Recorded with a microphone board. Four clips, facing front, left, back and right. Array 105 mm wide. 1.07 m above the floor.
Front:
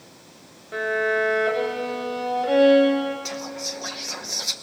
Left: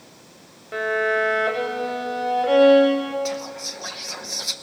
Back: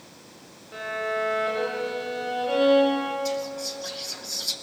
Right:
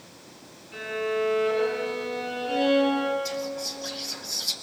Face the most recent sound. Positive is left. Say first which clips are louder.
# left 2 dB, back 3 dB
turn(degrees=45)